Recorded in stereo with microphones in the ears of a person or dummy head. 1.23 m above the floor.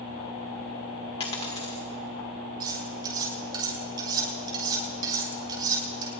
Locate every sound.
1.2 s a dropped coin: 35° left (ahead or behind), 1.8 m
2.6 s cutlery clinking: 25° right (ahead or behind), 6 m